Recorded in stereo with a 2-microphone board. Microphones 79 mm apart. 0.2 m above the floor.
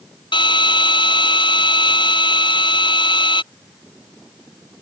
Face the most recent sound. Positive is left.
turn(degrees=75)  # may be behind; listen again after turning